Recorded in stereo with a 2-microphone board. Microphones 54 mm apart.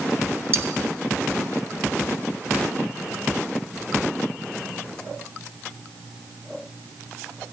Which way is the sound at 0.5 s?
45° right (ahead or behind).